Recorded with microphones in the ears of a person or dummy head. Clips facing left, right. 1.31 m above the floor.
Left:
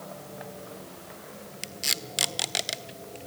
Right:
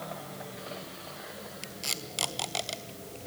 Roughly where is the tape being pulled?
Left.